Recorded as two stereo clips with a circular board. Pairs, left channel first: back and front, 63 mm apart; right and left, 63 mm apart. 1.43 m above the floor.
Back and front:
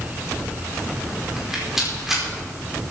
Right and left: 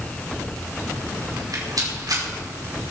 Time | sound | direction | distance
1.4 | a rattle | 85° left | 5.5 m